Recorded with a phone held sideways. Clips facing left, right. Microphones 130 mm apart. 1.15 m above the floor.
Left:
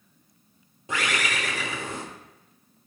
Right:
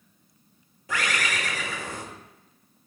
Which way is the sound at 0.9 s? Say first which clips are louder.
Even; 25° left (ahead or behind).